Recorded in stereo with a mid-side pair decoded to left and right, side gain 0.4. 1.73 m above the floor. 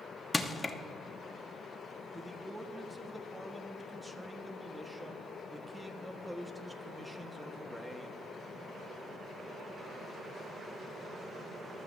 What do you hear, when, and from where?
0.3 s crushing: 20° left, 0.9 m
2.1 s a man speaking: 10° right, 1.3 m